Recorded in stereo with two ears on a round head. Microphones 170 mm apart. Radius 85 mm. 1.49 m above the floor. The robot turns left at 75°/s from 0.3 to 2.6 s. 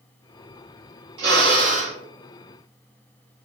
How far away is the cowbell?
No cowbell in this recording.